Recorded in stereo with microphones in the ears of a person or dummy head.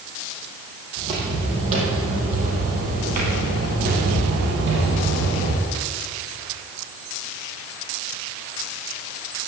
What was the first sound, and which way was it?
Footsteps, 25° right (ahead or behind).